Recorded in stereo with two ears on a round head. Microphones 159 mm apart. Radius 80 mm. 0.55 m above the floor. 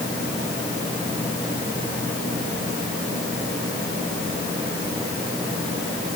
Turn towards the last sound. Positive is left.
No sound to turn to.